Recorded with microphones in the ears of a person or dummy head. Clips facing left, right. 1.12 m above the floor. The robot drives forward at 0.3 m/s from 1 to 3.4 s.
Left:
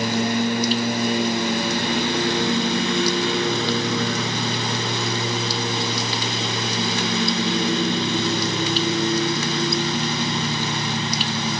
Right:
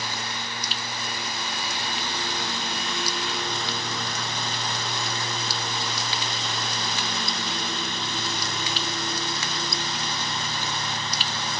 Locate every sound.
0.0 s a lawn mower: 50° left (ahead or behind); by 11.6 s 60° left (ahead or behind)